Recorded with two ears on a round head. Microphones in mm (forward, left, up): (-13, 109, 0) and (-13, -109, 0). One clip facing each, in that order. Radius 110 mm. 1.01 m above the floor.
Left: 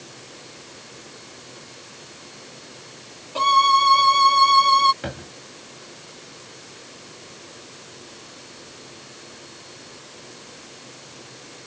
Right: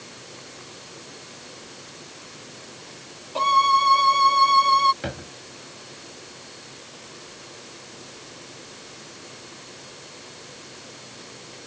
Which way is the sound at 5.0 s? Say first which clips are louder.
Even; centre (ahead or behind).